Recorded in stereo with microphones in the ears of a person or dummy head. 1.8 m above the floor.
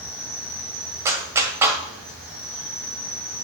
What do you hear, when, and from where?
0.0 s an insect: centre (ahead or behind), 4 m
1.1 s a clap: 15° right (ahead or behind), 1.6 m